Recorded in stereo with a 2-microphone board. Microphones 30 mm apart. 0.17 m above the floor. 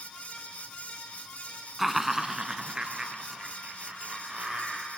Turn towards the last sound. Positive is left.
turn(degrees=-40)  # may be behind; listen again after turning